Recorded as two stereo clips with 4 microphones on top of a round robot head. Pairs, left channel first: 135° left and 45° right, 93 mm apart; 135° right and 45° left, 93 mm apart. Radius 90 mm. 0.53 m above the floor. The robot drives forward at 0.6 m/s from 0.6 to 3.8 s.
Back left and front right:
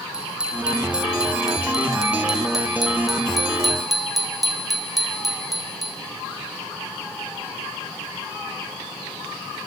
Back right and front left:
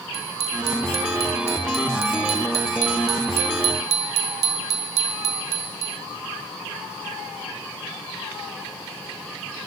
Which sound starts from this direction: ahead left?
A bicycle bell, at 0.1 s.